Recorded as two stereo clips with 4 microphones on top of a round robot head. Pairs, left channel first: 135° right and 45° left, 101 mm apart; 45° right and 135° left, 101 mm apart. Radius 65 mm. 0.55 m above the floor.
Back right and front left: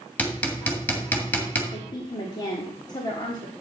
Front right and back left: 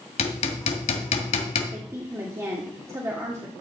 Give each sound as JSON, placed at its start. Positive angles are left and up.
{"t": 0.2, "sound": "hammering", "azimuth_deg": -60, "distance_m": 1.7}
{"t": 1.7, "sound": "a woman speaking", "azimuth_deg": -170, "distance_m": 1.5}